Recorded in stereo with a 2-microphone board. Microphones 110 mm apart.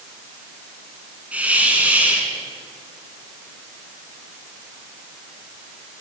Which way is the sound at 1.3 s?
15° right (ahead or behind).